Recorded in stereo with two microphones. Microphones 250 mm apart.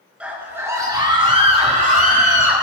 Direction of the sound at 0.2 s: 5° right (ahead or behind).